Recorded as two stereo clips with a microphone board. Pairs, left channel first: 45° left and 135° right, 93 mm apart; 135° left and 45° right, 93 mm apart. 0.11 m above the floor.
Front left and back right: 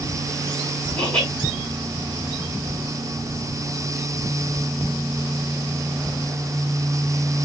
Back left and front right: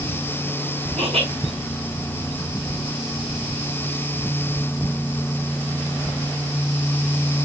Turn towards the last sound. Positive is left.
turn(degrees=-30)